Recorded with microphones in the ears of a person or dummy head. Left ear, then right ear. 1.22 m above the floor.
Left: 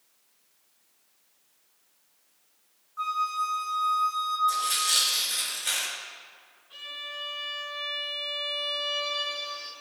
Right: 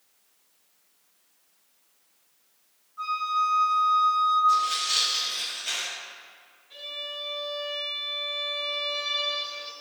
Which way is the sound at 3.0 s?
60° left (ahead or behind).